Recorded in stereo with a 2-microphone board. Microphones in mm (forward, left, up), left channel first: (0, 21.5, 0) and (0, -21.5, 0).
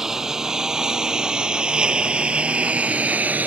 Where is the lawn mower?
10° right (ahead or behind); by 3.5 s 40° right (ahead or behind).